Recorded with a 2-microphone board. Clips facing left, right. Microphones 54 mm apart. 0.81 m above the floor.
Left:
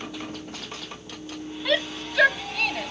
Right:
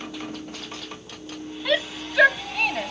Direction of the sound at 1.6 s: 5° right (ahead or behind).